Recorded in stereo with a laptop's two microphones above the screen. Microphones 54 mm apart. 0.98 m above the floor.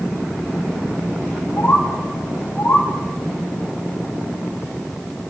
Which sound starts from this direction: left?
A bird, at 1.6 s.